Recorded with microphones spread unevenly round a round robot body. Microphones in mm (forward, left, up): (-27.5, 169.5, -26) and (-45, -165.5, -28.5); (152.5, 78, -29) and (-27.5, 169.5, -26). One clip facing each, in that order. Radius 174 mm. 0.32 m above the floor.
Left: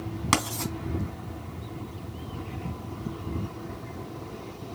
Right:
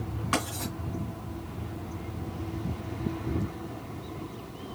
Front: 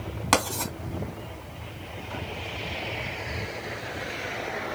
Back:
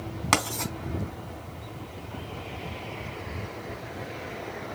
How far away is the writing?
About 3 m.